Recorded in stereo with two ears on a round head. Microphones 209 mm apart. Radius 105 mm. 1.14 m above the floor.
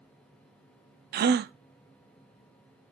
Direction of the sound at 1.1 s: 45° right (ahead or behind).